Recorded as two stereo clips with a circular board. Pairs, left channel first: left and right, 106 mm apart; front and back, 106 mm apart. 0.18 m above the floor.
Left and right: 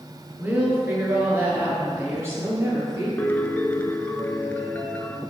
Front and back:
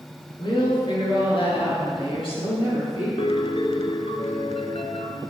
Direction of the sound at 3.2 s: 20° left.